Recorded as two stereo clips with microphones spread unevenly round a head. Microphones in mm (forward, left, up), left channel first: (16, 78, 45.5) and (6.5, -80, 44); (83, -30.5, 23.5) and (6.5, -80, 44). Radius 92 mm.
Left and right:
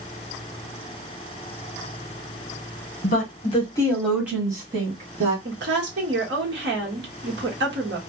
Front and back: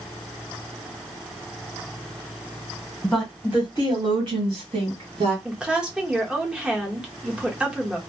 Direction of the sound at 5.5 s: 75° right.